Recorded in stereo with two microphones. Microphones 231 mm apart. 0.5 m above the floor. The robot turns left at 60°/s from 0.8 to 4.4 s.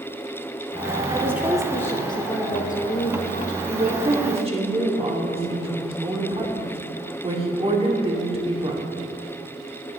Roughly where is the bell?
No bell in this recording.